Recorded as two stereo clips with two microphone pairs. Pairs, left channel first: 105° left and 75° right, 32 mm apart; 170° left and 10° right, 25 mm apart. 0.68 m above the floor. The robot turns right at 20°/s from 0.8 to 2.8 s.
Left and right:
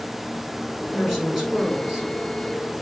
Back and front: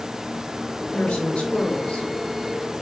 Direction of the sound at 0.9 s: 175° right.